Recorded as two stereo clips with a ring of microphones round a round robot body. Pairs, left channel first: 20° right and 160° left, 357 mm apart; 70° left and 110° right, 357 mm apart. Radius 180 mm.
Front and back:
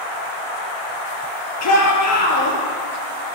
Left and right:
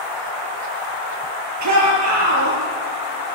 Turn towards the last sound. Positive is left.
turn(degrees=-70)